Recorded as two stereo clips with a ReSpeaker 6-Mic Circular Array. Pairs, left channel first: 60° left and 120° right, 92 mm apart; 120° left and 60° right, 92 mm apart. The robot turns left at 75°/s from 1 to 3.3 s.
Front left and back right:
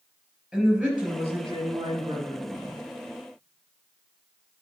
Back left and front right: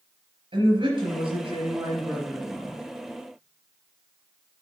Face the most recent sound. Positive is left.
turn(degrees=145)